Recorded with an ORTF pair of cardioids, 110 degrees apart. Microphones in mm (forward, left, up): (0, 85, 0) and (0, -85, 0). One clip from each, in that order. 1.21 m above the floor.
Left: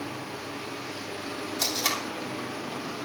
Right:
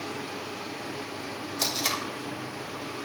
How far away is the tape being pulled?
About 3.5 m.